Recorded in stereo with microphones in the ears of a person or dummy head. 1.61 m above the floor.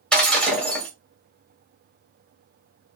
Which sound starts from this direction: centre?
Breaking glass, at 0.1 s.